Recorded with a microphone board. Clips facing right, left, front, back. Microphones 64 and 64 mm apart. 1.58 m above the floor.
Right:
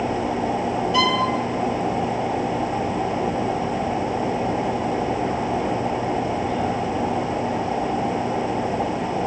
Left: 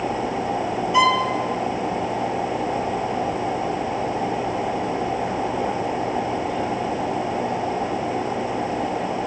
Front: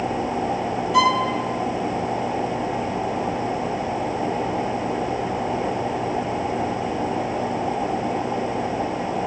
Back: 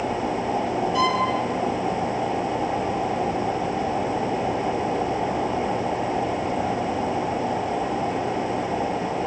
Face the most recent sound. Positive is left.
turn(degrees=20)